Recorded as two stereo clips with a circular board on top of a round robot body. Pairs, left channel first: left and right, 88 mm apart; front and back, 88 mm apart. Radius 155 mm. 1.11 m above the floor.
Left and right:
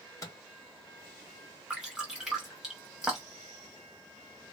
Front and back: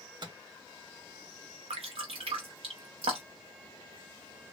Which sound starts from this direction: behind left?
A microwave, at 0.2 s.